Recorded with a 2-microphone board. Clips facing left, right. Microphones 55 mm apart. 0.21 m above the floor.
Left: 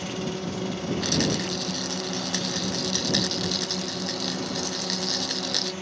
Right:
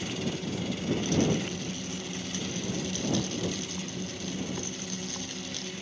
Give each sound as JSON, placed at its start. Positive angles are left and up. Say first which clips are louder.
{"t": 0.0, "sound": "a drone", "louder": "left 3 dB", "side_deg": 55}
{"t": 1.0, "sound": "a rattle", "louder": "left 1 dB", "side_deg": 70}